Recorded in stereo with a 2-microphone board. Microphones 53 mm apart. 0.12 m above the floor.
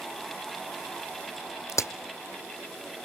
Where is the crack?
70° left (ahead or behind), 1.1 m.